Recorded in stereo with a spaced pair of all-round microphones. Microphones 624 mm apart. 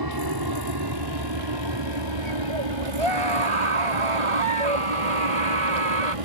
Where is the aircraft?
35° right (ahead or behind); by 6.3 s 60° right (ahead or behind).